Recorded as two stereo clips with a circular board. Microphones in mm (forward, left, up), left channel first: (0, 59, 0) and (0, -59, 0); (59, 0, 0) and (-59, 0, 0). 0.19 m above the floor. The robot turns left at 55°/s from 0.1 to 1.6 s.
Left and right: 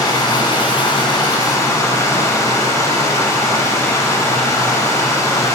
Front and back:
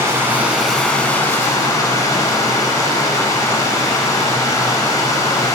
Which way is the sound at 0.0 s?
125° left.